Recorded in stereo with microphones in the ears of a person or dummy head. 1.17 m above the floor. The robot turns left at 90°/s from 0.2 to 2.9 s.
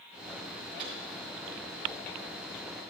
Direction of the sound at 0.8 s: 30° right (ahead or behind).